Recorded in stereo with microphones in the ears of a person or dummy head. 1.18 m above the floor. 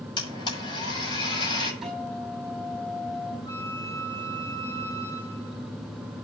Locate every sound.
0.2 s a blender: 25° left (ahead or behind), 6.5 m
1.8 s a guitar: 5° right (ahead or behind), 5.5 m
3.5 s a flute: 30° left (ahead or behind), 5.5 m